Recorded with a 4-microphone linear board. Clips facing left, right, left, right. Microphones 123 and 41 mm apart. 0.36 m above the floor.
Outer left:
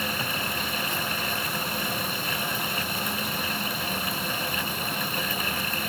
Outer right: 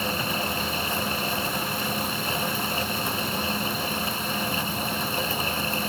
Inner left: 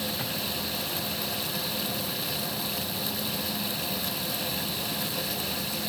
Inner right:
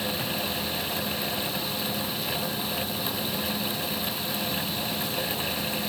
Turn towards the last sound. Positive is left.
No sound to turn to.